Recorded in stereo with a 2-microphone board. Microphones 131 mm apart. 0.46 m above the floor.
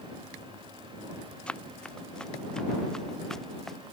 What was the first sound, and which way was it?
Running footsteps, 5° left (ahead or behind).